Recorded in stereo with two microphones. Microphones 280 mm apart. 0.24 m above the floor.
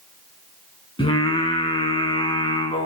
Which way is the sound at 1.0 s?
20° left (ahead or behind).